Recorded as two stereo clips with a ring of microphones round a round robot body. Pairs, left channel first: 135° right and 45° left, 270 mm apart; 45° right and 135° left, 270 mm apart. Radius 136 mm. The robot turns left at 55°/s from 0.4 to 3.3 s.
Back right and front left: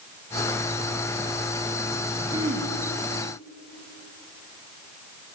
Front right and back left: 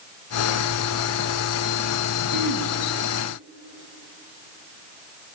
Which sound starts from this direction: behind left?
Throat clearing, at 2.3 s.